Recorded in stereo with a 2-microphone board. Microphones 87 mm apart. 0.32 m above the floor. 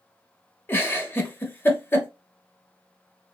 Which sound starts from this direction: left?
A giggle, at 0.7 s.